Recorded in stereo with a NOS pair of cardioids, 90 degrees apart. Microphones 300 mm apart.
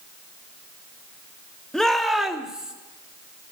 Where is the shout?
Straight ahead, 1.7 m; by 2.7 s 5° right, 2 m.